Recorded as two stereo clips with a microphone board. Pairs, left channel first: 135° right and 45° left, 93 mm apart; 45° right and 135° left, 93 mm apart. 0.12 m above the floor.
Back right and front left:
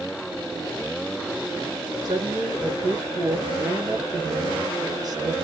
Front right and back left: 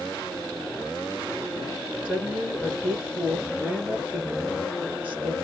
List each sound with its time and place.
2.0 s a woman speaking: 70° left, 2.5 m